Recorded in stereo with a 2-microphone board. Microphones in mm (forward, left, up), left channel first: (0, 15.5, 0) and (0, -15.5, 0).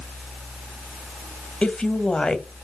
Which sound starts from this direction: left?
A woman speaking, at 1.6 s.